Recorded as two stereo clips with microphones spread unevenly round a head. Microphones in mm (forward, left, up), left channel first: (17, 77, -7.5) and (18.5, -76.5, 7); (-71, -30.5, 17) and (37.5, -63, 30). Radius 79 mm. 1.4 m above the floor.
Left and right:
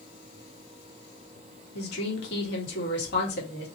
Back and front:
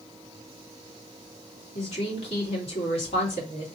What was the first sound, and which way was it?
A woman speaking, 115° left.